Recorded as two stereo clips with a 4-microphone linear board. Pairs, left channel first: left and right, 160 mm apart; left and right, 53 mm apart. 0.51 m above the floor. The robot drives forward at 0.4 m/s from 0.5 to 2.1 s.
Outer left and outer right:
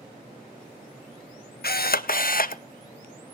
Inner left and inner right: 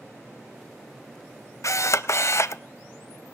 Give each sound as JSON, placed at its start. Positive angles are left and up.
{"t": 1.6, "sound": "a camera shutter", "side_deg": 75, "distance_m": 0.5}